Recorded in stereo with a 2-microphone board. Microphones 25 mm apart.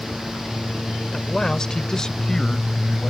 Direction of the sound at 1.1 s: 20° left (ahead or behind).